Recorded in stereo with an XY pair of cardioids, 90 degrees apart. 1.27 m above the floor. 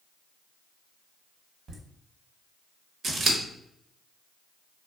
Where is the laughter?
50° right, 1.0 m.